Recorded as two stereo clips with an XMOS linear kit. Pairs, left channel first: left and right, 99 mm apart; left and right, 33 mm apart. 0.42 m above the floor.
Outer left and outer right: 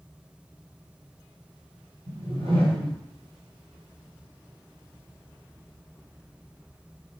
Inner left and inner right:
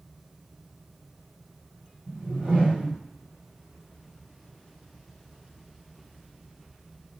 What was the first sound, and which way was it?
A whoosh, 65° right (ahead or behind).